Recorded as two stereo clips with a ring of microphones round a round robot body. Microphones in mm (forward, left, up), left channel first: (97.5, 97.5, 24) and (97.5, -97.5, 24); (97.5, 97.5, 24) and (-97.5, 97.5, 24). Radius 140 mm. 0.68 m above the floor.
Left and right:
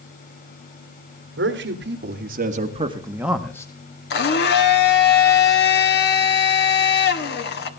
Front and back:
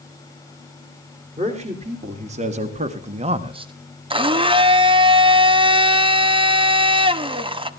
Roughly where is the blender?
Behind left.